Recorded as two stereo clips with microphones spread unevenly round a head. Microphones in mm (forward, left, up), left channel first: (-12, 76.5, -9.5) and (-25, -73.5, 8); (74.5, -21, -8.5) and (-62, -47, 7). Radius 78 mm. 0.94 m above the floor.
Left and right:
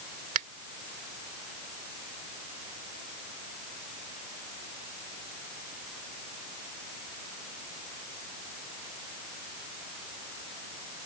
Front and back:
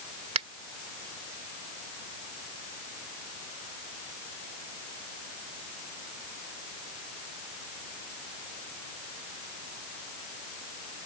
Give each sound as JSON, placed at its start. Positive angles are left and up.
{"t": 0.3, "sound": "a finger snap", "azimuth_deg": -130}